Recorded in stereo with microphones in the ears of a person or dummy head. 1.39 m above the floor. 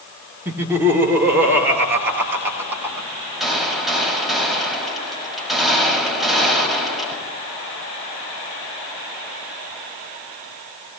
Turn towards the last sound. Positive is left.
turn(degrees=0)  # may be behind; listen again after turning